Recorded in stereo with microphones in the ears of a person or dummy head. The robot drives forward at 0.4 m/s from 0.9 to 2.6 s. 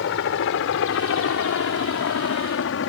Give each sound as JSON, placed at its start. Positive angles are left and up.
{"t": 0.0, "sound": "a helicopter", "side_deg": 70}